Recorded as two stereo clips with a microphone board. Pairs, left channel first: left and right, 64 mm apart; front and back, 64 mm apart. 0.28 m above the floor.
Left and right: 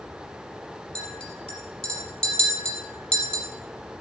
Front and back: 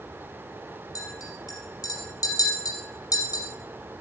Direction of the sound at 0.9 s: 15° left.